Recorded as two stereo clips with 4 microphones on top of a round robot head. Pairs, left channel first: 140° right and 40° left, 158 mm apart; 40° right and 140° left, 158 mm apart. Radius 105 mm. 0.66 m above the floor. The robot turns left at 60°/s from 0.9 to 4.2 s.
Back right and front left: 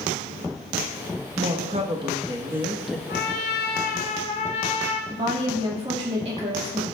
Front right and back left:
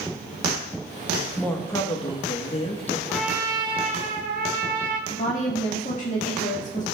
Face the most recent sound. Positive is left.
turn(degrees=-5)